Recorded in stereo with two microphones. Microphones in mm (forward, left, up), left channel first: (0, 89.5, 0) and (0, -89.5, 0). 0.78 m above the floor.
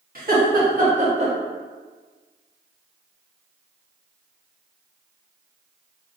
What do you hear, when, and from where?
0.1 s laughter: 55° right (ahead or behind), 1.2 m; by 1.3 s 35° right (ahead or behind), 0.9 m